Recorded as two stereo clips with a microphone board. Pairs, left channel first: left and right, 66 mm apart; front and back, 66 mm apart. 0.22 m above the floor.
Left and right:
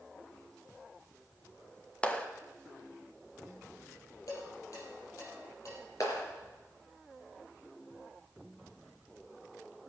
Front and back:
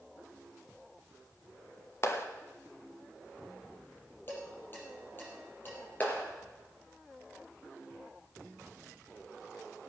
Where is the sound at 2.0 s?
25° left, 1.1 m.